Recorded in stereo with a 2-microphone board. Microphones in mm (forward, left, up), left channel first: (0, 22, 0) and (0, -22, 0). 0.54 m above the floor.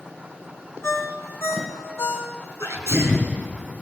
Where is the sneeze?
80° left, 5.5 m.